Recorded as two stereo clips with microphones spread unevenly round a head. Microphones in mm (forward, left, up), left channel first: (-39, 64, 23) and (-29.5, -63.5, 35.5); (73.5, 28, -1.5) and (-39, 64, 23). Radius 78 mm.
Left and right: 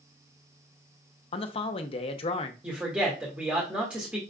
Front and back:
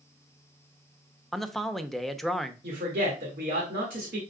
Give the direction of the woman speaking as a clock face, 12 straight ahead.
6 o'clock.